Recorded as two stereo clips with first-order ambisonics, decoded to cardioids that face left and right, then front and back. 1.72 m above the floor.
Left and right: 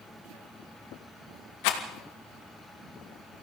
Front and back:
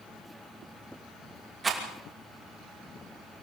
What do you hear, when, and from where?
1.6 s a rattle: 105° left, 2.5 m